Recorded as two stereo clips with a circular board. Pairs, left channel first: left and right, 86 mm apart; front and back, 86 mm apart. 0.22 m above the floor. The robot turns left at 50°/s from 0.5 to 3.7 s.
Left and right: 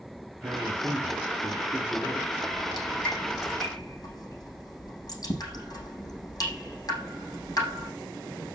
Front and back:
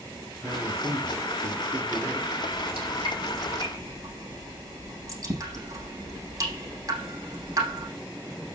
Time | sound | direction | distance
0.4 | a man speaking | 115° right | 2.5 m
2.5 | dripping | 165° right | 6 m